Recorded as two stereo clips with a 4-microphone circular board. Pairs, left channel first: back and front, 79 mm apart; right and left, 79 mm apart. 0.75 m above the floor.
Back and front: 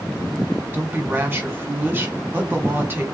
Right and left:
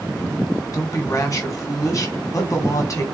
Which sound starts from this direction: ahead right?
A woman speaking, at 0.7 s.